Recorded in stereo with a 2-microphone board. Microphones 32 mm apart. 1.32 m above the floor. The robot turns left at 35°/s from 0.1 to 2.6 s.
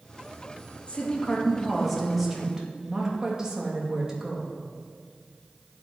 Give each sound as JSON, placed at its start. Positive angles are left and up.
{"t": 0.9, "sound": "a woman speaking", "azimuth_deg": 45, "distance_m": 2.5}